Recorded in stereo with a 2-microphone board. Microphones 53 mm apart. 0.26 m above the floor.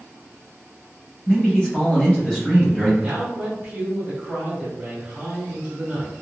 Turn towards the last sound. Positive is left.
turn(degrees=-15)  # may be behind; listen again after turning